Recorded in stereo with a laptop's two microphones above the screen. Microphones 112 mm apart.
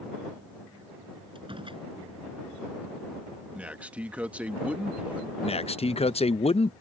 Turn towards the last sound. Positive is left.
turn(degrees=65)  # may be behind; listen again after turning